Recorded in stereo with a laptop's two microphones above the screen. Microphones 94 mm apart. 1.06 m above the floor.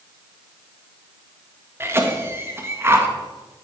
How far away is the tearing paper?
I don't hear tearing paper.